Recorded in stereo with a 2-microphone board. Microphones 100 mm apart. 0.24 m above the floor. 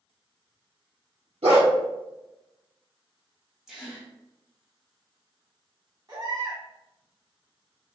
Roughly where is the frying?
I don't hear frying.